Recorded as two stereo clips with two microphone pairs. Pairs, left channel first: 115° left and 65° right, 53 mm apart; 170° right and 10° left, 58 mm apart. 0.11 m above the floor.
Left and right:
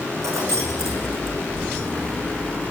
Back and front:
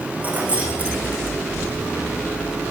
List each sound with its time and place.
0.2 s keys jangling: 50° right, 4 m